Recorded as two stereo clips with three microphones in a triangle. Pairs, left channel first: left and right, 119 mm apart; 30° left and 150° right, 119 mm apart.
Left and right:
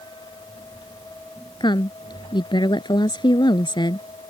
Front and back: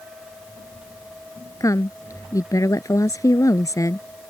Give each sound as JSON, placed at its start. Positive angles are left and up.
{"t": 1.6, "sound": "a woman speaking", "azimuth_deg": 75}